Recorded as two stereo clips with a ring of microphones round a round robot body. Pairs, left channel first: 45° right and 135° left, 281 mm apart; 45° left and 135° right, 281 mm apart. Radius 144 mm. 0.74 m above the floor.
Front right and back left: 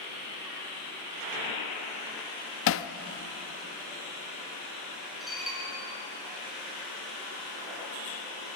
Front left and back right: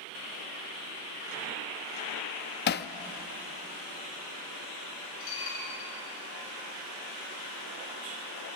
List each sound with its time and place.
2.7 s hammering: 5° right, 0.7 m
5.2 s dishes clattering: 45° left, 7.5 m